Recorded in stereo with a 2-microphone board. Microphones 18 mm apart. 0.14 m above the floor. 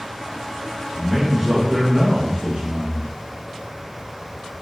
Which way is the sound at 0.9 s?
Centre (ahead or behind).